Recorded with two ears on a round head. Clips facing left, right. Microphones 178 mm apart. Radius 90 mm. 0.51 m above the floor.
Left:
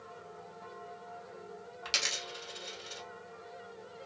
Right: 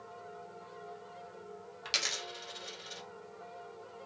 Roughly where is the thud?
No thud in this recording.